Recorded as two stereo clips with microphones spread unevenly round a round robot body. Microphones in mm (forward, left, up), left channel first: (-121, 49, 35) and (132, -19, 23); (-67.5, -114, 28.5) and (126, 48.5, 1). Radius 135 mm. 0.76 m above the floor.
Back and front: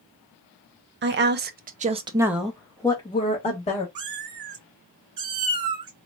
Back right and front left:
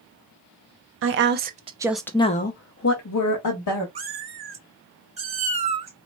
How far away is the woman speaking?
About 0.8 m.